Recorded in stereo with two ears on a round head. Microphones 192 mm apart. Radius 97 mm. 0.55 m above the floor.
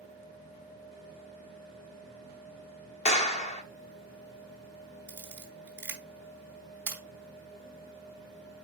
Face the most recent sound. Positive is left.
turn(degrees=-10)  # may be behind; listen again after turning